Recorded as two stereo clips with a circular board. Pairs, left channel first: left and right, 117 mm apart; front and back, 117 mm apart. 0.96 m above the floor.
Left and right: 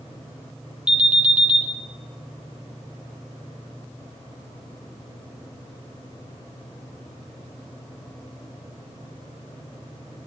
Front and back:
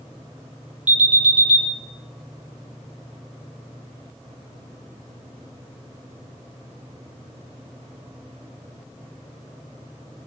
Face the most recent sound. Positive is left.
turn(degrees=-170)